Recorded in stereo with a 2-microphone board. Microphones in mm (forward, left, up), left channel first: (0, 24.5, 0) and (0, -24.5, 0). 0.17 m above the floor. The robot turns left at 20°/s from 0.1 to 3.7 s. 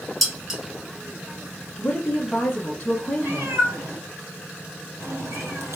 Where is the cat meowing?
60° right (ahead or behind), 2 m; by 5.8 s 65° right (ahead or behind), 2 m.